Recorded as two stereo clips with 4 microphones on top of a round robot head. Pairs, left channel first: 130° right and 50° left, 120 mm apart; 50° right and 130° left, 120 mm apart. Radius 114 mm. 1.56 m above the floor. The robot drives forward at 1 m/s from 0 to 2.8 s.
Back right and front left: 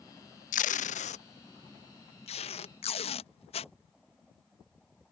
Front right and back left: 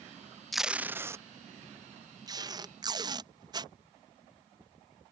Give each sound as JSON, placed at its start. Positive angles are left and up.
{"t": 0.5, "sound": "tape being pulled", "azimuth_deg": -135}